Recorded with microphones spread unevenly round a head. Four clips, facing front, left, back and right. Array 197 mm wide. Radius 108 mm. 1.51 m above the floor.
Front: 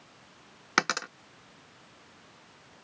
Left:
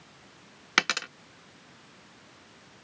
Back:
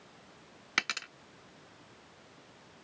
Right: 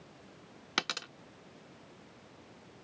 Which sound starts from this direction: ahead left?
A dropped coin, at 0.8 s.